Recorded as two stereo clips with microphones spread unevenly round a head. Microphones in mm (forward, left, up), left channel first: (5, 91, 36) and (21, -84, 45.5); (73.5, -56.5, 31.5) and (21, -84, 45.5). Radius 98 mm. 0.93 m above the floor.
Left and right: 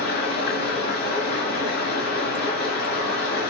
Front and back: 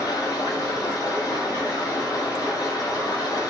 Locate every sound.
0.0 s running water: 70° left, 1.5 m